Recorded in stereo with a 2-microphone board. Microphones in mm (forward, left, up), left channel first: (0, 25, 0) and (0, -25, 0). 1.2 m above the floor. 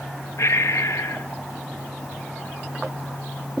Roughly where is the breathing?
Left.